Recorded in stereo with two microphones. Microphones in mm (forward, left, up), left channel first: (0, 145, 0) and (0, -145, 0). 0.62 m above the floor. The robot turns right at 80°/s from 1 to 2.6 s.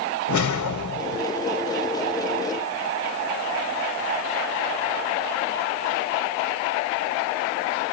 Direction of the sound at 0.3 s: 85° left.